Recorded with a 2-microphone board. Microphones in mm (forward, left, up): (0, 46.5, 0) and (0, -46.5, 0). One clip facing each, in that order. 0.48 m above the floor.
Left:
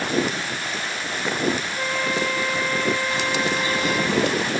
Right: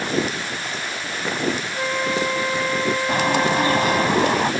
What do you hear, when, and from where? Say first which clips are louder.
1.8 s a flute: right 2 dB; 15° right (ahead or behind)
3.1 s a bird: right 5 dB; 55° right (ahead or behind)